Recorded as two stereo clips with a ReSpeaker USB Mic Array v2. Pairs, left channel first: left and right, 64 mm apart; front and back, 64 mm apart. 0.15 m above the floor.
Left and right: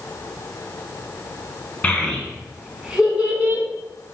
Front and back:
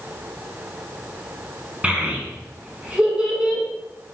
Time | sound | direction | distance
1.8 | a child speaking | 135° left | 1.0 m